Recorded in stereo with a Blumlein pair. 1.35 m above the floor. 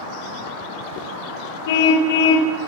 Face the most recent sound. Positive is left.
turn(degrees=55)